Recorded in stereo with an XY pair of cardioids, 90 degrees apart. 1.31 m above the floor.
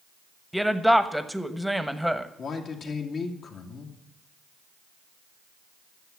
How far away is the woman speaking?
About 1.1 m.